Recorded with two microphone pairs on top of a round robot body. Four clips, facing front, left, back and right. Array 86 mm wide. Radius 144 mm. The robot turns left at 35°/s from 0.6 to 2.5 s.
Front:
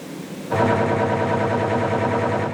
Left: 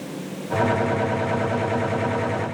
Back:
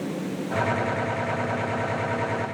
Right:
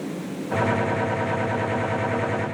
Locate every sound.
Only background noise.